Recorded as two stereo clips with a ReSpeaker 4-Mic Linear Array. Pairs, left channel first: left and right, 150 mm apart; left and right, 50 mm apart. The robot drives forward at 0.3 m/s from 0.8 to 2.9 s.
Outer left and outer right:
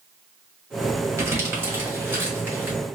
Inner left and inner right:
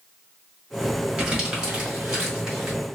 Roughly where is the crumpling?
Centre.